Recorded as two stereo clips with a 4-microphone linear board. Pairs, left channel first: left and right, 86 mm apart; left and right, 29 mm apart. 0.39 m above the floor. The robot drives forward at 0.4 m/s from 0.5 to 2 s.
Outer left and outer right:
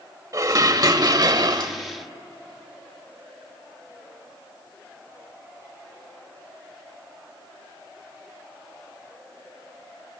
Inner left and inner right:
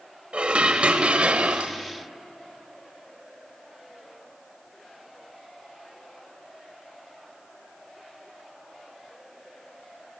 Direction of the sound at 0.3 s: 45° right (ahead or behind).